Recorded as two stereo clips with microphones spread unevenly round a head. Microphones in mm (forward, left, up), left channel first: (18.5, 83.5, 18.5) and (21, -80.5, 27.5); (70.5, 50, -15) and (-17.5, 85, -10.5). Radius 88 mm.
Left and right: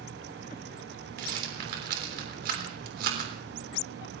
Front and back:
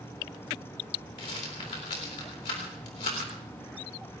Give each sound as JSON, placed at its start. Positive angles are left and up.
{"t": 1.2, "sound": "a rattle", "azimuth_deg": -60, "distance_m": 3.5}